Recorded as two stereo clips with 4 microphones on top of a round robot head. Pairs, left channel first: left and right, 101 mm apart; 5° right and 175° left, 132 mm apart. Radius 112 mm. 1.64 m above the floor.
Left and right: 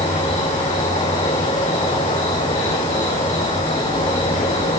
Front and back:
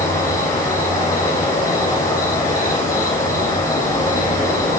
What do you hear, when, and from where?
0.0 s an insect: 65° left, 6.5 m